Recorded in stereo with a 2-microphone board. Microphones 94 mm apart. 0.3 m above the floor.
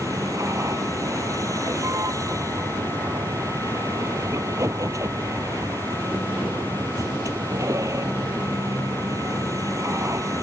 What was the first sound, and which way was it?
A vehicle, 35° right (ahead or behind).